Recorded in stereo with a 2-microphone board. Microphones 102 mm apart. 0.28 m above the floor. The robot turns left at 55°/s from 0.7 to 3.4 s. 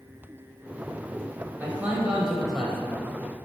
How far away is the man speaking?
About 1.1 m.